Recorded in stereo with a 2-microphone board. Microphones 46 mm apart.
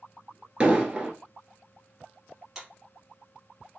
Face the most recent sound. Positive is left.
turn(degrees=-10)  # may be behind; listen again after turning